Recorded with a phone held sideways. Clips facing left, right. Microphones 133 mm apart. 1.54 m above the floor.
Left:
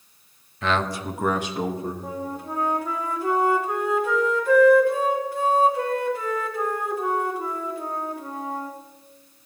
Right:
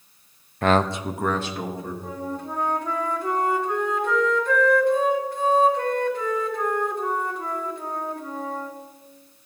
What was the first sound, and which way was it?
A man speaking, 55° right (ahead or behind).